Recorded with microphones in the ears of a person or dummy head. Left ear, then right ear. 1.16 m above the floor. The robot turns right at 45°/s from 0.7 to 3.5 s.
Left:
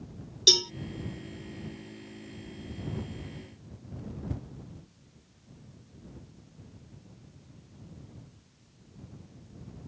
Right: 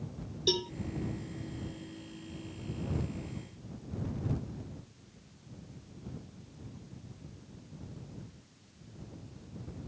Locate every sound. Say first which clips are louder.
0.5 s a cowbell: left 10 dB; 50° left (ahead or behind)